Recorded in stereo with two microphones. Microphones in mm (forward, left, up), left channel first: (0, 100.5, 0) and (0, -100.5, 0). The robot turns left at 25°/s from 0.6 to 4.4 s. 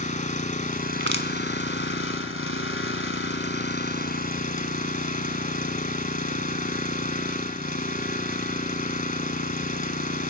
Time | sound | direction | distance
0.0 | an engine running | 140° left | 1.3 m
1.0 | crushing | 70° right (ahead or behind) | 1.6 m